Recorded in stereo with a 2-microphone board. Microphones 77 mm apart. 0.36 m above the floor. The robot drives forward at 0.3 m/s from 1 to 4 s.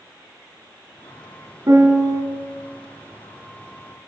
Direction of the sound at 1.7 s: 50° right (ahead or behind).